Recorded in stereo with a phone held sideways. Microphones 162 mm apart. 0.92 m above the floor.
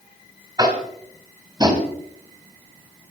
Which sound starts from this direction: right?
Tapping, at 0.6 s.